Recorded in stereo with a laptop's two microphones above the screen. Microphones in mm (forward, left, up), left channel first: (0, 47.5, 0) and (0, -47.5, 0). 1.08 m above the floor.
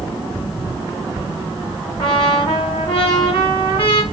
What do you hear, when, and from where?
2.0 s a trumpet: 60° left (ahead or behind), 1.6 m